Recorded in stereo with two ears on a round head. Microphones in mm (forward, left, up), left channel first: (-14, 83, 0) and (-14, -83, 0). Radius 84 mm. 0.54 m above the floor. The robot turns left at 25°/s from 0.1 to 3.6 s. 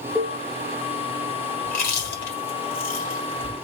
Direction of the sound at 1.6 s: 50° left (ahead or behind).